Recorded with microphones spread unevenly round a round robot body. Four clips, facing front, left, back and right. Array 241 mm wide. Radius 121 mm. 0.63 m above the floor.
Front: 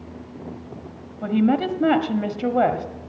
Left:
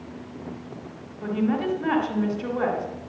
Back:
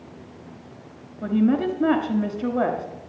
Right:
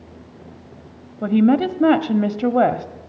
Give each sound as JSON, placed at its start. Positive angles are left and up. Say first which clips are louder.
{"t": 1.2, "sound": "a woman speaking", "louder": "right 9 dB, front 1 dB", "azimuth_deg": -70, "distance_m": 1.3}